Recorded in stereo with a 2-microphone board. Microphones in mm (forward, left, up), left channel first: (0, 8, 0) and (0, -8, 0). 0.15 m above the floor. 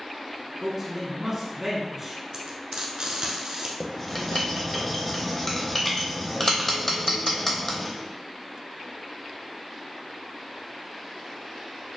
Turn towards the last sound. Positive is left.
turn(degrees=10)  # may be behind; listen again after turning